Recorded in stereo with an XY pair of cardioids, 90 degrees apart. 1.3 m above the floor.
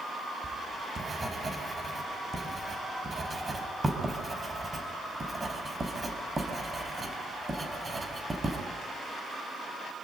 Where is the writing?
25° right, 5 m.